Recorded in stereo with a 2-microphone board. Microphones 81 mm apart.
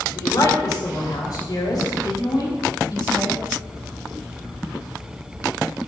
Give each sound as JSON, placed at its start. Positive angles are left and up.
{"t": 0.1, "sound": "a woman speaking", "side_deg": 50, "distance_m": 3.0}